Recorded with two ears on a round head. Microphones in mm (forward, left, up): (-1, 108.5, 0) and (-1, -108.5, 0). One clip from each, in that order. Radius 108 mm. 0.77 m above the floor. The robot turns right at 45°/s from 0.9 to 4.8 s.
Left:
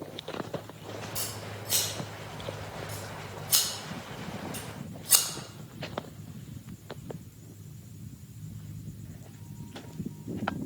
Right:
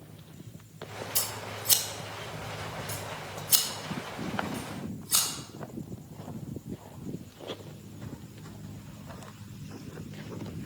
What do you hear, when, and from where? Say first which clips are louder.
1.1 s scissors: right 3 dB; 55° right (ahead or behind), 1.7 m; by 5.2 s 40° left (ahead or behind), 1.7 m